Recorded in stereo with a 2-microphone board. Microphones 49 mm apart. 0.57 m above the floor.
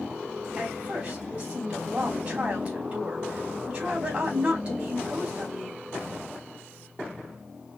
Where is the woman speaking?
35° right (ahead or behind), 2.5 m.